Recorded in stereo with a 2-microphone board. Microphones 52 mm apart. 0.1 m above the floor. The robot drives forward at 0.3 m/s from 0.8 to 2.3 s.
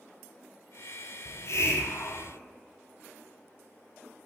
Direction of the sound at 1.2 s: 65° left (ahead or behind).